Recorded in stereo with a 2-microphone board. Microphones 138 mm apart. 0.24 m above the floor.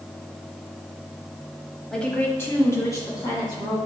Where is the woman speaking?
5° left (ahead or behind), 1.1 m; by 3.8 s 30° left (ahead or behind), 2.5 m.